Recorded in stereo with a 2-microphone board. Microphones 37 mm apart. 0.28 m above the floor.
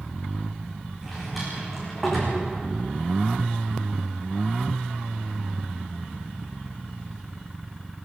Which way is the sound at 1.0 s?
5° right (ahead or behind).